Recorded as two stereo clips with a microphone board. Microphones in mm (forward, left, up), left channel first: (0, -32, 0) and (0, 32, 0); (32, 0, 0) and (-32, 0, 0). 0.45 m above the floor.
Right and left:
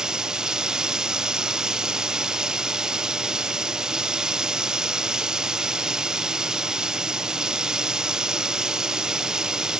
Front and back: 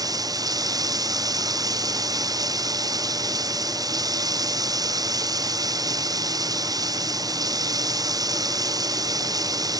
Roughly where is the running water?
Behind.